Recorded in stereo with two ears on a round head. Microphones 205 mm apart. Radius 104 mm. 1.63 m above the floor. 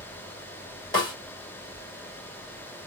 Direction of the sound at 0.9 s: 20° left (ahead or behind).